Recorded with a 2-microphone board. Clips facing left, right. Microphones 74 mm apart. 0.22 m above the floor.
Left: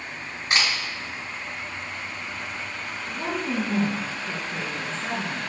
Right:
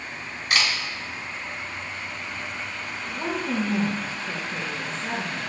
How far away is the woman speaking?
About 3 m.